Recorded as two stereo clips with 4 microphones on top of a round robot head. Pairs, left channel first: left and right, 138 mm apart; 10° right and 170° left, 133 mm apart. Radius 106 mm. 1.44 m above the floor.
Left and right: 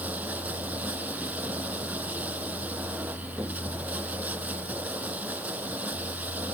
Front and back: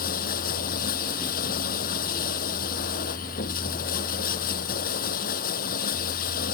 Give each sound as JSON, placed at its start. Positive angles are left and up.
{"t": 0.0, "sound": "running water", "azimuth_deg": -10}